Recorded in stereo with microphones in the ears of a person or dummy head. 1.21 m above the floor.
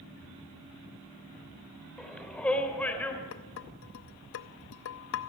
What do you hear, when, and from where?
2.0 s a shout: 5° left (ahead or behind), 4 m; by 3.2 s 10° left (ahead or behind), 4.5 m
3.3 s dishes clattering: 60° left (ahead or behind), 0.9 m